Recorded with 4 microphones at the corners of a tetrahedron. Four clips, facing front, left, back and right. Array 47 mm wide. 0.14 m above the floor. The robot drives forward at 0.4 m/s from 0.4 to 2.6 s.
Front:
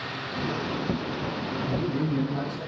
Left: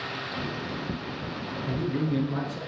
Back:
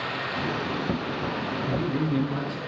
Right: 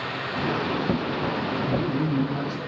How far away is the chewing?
I don't hear chewing.